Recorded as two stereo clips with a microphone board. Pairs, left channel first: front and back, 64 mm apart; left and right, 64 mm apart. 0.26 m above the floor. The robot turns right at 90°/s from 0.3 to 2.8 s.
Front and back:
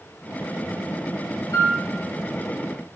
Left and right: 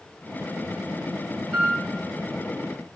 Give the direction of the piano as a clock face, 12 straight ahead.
12 o'clock.